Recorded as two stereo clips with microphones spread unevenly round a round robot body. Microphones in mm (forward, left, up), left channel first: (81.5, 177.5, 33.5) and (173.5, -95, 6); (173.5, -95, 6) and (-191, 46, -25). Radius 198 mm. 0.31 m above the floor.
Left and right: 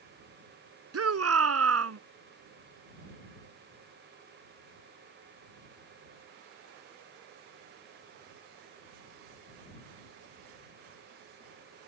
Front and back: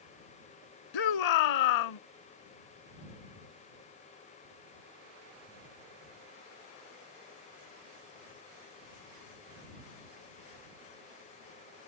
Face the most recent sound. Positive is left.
turn(degrees=-40)